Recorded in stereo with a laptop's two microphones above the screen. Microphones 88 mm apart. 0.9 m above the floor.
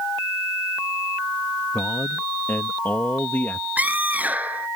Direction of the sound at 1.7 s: 20° left (ahead or behind).